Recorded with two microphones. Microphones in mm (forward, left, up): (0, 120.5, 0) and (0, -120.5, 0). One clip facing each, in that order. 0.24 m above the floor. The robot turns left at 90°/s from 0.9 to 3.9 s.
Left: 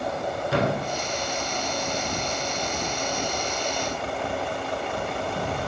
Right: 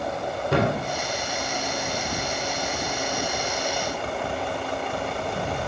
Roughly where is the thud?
Right.